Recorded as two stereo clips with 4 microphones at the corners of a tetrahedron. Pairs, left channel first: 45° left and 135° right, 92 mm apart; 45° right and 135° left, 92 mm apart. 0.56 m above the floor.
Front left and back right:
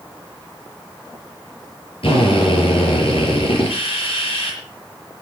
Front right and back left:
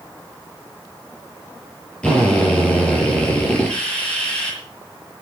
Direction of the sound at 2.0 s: 30° left.